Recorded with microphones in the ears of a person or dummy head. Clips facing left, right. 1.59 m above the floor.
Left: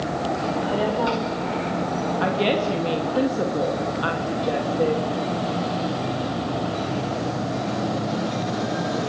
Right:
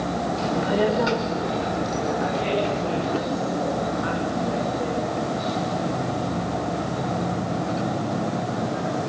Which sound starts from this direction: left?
A woman speaking, at 2.2 s.